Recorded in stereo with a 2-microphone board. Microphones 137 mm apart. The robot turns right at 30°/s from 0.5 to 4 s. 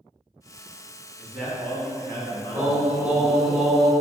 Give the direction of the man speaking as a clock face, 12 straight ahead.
12 o'clock.